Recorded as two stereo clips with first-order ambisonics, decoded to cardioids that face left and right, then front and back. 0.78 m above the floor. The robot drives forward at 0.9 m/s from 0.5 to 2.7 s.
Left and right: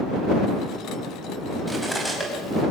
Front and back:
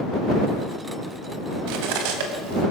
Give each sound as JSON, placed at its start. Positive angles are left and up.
{"t": 1.7, "sound": "cutlery clinking", "azimuth_deg": 180, "distance_m": 3.5}